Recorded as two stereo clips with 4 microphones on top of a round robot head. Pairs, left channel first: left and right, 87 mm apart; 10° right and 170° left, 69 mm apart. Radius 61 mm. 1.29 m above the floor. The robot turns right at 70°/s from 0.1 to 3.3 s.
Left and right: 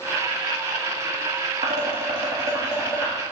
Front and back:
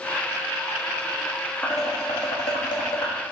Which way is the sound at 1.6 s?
85° right.